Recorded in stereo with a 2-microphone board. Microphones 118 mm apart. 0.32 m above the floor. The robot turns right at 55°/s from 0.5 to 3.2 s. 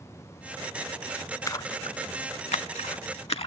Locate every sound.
1.5 s a splash: 25° left (ahead or behind), 0.5 m; by 3.5 s 55° left (ahead or behind), 0.5 m